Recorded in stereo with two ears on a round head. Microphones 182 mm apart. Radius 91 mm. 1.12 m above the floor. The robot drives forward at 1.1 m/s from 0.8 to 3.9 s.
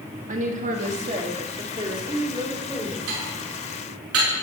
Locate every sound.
0.3 s a woman speaking: 40° right (ahead or behind), 1.9 m; by 3.0 s 15° right (ahead or behind), 4 m
3.1 s dishes clattering: 85° right, 9 m; by 4.3 s 80° right, 9 m